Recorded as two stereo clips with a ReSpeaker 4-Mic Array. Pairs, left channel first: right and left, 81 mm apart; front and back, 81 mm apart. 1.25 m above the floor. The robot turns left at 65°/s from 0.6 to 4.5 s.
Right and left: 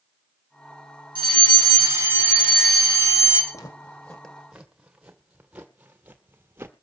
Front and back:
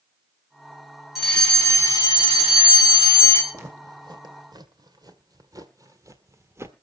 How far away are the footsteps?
About 3 m.